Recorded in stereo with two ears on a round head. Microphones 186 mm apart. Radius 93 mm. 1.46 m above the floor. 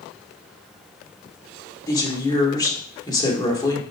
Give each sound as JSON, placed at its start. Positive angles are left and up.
{"t": 1.9, "sound": "a woman speaking", "side_deg": 20, "distance_m": 3.0}